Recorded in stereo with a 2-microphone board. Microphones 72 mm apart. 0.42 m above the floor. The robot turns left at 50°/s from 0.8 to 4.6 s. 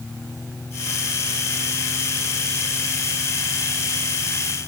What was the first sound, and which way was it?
Only background noise.